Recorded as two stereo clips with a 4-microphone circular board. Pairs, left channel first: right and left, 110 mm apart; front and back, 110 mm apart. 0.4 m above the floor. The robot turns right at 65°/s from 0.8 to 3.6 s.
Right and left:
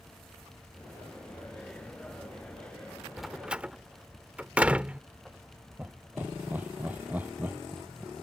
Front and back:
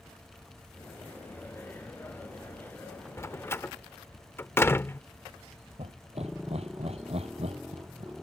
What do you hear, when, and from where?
3.2 s a door slam: straight ahead; by 5.0 s 30° left
5.8 s laughter: 165° left